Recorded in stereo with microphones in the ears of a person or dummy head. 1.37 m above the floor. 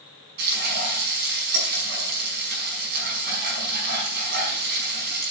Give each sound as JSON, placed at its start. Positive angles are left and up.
{"t": 0.4, "sound": "frying", "side_deg": -55, "distance_m": 5.0}